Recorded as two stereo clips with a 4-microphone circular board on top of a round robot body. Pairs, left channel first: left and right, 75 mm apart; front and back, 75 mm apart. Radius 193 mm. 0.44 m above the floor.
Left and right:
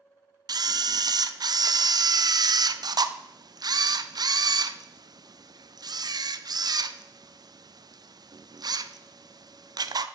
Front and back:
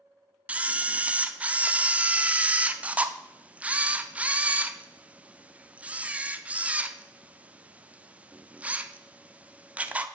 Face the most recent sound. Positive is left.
turn(degrees=-110)